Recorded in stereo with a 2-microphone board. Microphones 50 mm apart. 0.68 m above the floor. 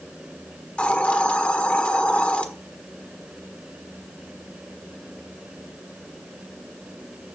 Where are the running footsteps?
I don't hear running footsteps.